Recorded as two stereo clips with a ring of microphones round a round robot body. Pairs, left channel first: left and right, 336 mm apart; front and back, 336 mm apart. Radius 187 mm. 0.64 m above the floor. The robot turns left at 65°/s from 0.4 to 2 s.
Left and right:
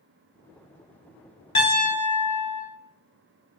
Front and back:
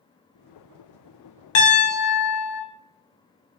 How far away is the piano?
About 0.7 m.